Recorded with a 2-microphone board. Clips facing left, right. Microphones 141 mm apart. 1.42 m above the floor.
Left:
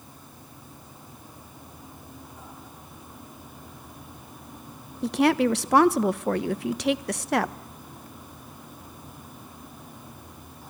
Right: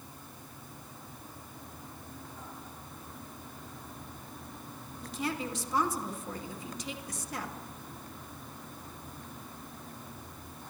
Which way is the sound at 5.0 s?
70° left (ahead or behind).